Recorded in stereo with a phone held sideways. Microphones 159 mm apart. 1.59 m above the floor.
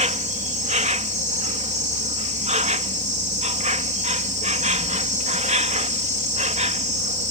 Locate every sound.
0.0 s an insect: 50° right (ahead or behind)